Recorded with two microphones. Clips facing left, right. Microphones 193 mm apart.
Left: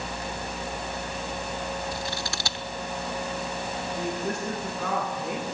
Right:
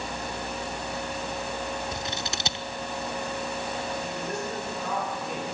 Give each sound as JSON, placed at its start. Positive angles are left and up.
{"t": 1.9, "sound": "scissors", "side_deg": -20, "distance_m": 0.6}
{"t": 4.0, "sound": "a woman speaking", "side_deg": 80, "distance_m": 8.0}